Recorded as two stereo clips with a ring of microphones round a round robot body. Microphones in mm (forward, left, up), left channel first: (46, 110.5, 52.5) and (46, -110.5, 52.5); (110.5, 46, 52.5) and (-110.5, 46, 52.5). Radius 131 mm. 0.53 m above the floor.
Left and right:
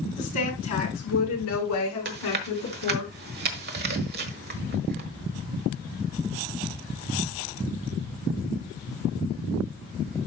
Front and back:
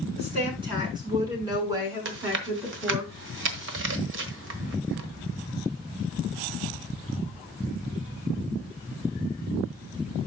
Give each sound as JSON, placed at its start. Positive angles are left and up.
{"t": 0.2, "sound": "a woman speaking", "azimuth_deg": 115, "distance_m": 7.0}
{"t": 2.0, "sound": "chewing", "azimuth_deg": -140, "distance_m": 1.3}